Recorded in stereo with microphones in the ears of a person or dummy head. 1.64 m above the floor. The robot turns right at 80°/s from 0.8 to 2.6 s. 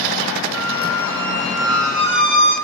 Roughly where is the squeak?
Behind left.